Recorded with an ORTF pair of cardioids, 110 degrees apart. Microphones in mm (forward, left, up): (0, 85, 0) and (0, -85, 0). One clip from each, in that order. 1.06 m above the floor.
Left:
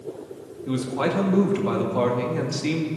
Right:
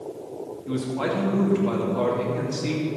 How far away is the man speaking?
About 2 m.